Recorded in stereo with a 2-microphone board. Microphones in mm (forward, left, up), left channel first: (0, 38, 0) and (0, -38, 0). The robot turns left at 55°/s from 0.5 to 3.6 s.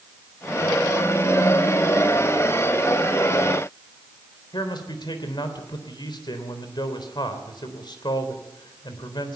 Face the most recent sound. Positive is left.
turn(degrees=80)